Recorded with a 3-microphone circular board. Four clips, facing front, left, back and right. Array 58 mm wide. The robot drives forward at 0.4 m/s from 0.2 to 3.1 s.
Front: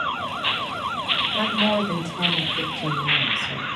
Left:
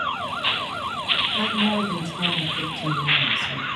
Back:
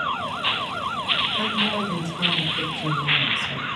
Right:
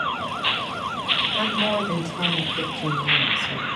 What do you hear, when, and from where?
1.3 s a woman speaking: 40° right, 1.2 m; by 3.7 s 85° right, 1.0 m